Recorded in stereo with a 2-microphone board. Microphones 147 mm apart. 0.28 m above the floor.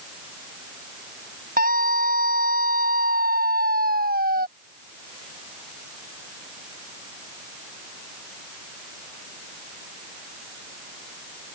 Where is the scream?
75° right (ahead or behind); by 4.5 s 85° right.